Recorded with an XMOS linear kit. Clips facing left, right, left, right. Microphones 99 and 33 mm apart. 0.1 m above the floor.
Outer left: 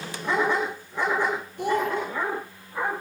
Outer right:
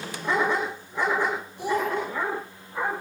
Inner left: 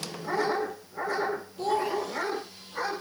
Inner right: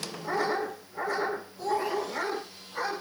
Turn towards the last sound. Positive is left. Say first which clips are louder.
# outer left 1 dB, inner left 2 dB
turn(degrees=65)  # may be behind; listen again after turning